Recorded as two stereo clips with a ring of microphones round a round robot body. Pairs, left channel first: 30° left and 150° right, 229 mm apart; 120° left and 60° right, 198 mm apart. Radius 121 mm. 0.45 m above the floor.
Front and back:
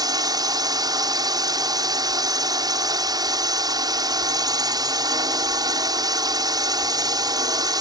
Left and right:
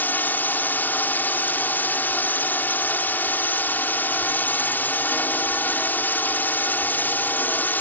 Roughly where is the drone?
Behind.